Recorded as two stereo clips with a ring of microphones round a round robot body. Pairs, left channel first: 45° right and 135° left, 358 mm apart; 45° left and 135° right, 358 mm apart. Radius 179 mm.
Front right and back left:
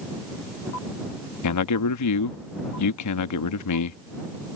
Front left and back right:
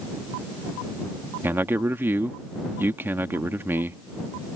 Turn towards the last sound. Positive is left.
turn(degrees=-55)